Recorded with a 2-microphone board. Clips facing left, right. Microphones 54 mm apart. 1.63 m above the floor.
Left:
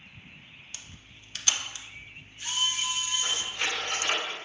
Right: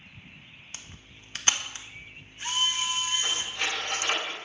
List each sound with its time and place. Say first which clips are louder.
0.7 s a camera shutter: right 1 dB; 35° right (ahead or behind), 0.9 m
3.2 s cutlery clinking: even; 10° right (ahead or behind), 4.5 m